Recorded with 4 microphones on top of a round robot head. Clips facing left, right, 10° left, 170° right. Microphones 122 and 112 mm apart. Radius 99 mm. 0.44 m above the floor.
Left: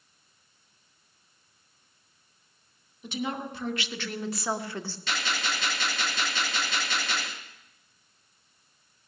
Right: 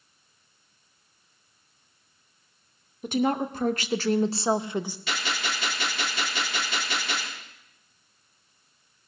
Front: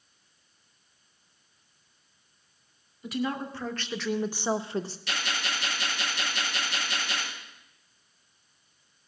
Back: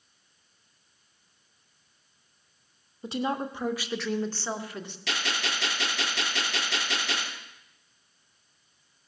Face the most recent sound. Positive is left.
turn(degrees=-175)